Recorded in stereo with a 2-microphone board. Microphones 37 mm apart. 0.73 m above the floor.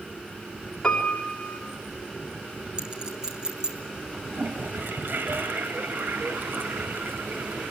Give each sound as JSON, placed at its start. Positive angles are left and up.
{"t": 0.8, "sound": "a piano", "side_deg": 20, "distance_m": 3.0}
{"t": 2.8, "sound": "a clink", "side_deg": -20, "distance_m": 4.0}
{"t": 4.3, "sound": "a toilet flushing", "side_deg": -70, "distance_m": 1.8}